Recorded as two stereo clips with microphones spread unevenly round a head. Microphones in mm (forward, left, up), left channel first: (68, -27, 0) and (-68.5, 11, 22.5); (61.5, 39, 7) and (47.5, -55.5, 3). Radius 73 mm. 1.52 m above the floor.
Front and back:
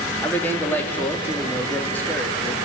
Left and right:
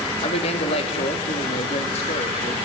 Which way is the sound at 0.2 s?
65° left.